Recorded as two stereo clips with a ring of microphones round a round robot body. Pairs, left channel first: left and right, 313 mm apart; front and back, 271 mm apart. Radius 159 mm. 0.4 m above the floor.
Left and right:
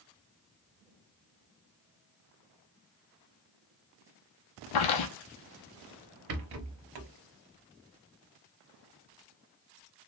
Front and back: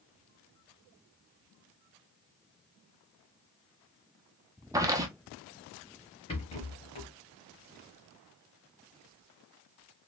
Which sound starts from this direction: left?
Footsteps, at 4.7 s.